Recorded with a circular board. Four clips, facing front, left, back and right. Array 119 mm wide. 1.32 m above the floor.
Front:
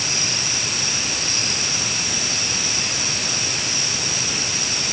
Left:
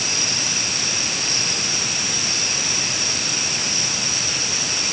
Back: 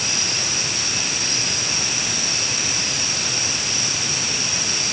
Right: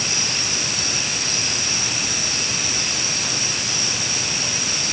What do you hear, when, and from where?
Only background noise.